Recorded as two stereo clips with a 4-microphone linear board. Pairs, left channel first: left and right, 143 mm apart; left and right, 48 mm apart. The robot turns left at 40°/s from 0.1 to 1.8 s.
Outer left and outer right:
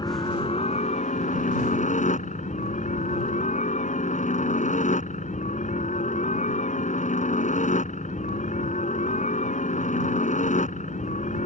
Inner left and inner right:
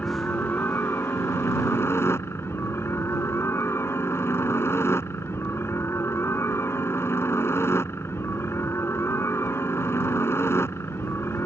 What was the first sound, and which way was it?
A helicopter, 145° left.